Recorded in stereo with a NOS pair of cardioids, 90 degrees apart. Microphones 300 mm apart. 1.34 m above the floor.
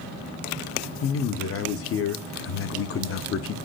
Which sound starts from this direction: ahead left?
A man speaking, at 1.0 s.